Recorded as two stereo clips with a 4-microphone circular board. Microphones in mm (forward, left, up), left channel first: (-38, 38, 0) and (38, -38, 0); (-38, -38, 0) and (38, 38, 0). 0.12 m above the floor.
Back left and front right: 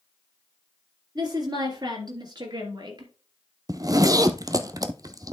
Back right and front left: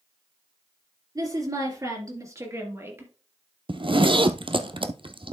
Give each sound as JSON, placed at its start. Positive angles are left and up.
{"t": 1.1, "sound": "a woman speaking", "azimuth_deg": 0, "distance_m": 3.0}
{"t": 3.7, "sound": "a zipper", "azimuth_deg": 10, "distance_m": 0.6}